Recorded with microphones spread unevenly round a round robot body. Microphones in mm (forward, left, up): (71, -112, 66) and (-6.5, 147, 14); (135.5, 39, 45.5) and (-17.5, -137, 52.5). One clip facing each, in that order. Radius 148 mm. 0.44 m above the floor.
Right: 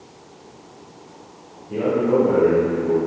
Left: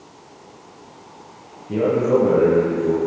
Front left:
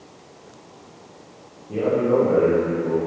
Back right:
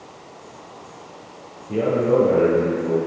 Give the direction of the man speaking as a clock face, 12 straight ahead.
7 o'clock.